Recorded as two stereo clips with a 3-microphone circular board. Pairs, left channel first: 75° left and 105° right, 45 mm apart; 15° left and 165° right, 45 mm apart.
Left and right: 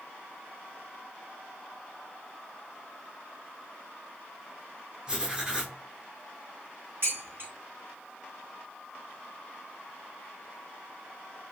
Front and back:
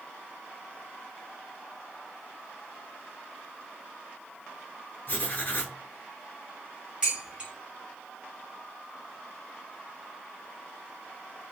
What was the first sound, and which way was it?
Writing, 30° right.